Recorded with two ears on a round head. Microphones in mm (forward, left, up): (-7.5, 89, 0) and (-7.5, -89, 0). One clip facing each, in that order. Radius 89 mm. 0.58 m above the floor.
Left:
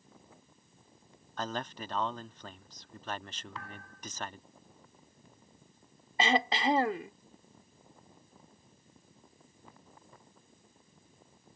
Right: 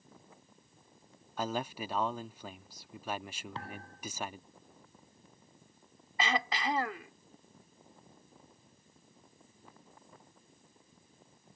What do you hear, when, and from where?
1.4 s a man speaking: 10° right (ahead or behind)
3.5 s a thud: 30° right (ahead or behind)
6.2 s throat clearing: 25° left (ahead or behind)